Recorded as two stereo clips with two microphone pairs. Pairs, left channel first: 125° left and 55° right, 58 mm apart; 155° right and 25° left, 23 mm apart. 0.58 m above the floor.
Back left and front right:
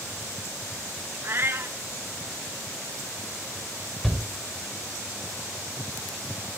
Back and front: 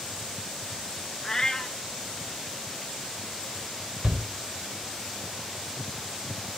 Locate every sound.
1.2 s a cat meowing: 95° right, 0.9 m
4.0 s a shout: 40° left, 2.5 m